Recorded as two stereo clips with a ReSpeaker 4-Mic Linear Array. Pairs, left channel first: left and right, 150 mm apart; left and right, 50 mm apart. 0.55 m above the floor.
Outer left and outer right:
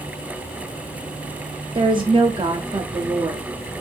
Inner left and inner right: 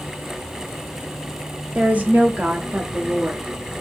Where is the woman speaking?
30° right (ahead or behind), 0.7 m.